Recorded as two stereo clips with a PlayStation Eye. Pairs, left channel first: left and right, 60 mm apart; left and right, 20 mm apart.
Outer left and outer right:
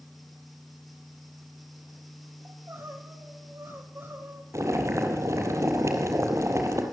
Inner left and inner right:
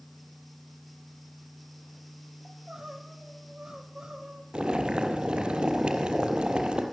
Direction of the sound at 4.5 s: 50° right (ahead or behind).